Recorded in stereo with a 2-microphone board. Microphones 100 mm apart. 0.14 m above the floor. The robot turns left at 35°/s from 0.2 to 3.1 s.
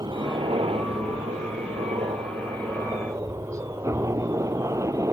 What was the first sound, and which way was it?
A helicopter, 45° right.